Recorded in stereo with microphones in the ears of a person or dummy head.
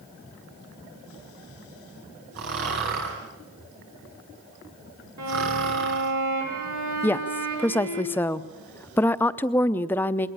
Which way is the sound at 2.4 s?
65° right (ahead or behind).